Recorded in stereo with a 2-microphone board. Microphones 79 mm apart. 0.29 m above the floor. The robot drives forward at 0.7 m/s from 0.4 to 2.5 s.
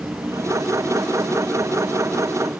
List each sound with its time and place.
0.0 s an insect: 35° right (ahead or behind); by 2.6 s 30° right (ahead or behind)